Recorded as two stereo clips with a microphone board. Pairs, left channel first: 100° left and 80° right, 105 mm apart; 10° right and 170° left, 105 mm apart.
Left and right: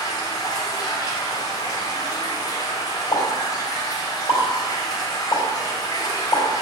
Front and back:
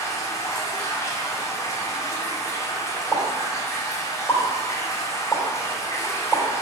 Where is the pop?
60° left, 3.5 m.